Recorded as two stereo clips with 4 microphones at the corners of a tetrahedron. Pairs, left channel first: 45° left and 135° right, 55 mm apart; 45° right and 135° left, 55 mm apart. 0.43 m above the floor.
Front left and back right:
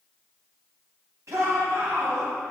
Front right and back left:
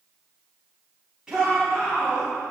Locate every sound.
1.3 s a shout: 150° right, 3 m